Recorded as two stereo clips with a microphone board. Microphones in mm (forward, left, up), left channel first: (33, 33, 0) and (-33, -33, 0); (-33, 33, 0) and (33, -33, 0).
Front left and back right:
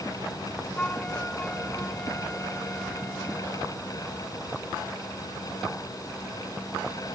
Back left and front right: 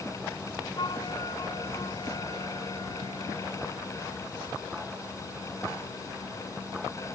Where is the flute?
120° left.